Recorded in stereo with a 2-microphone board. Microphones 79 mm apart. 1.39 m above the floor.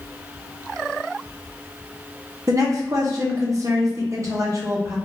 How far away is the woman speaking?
About 1.1 m.